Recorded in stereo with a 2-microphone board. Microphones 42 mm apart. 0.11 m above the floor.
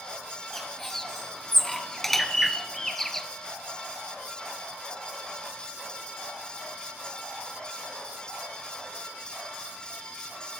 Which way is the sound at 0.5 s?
5° left (ahead or behind).